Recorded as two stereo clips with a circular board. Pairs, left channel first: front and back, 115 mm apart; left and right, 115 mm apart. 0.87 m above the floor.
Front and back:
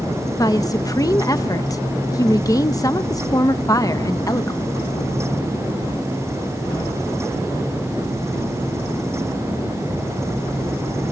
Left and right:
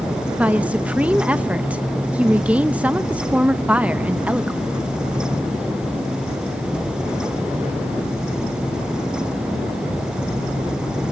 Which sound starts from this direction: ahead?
A woman speaking, at 0.4 s.